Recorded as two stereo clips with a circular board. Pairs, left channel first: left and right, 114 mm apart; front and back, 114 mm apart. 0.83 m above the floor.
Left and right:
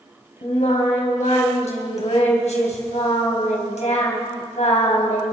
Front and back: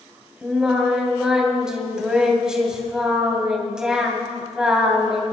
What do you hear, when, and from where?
0.4 s singing: 95° left, 2.5 m